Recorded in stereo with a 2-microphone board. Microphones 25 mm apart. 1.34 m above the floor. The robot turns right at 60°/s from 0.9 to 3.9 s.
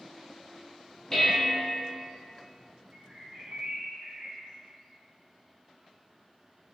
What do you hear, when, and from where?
1.1 s dishes clattering: 30° left, 0.9 m; by 1.7 s 65° left, 0.9 m
2.9 s a bird: 130° right, 1.2 m; by 4.5 s 70° right, 1.2 m